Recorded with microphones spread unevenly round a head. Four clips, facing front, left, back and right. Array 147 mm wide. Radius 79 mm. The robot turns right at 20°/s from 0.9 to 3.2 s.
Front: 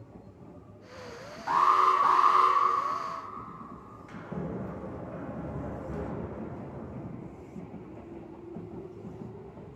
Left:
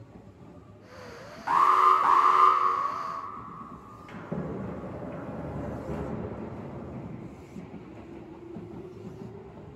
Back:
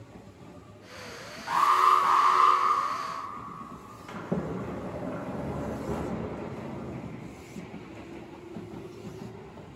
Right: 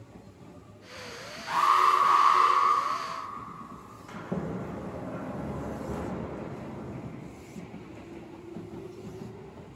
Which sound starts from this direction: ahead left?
An alarm, at 1.5 s.